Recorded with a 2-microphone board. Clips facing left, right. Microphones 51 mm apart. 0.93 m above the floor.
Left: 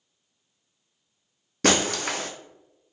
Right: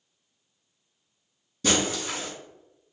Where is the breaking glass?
60° left (ahead or behind), 0.6 m.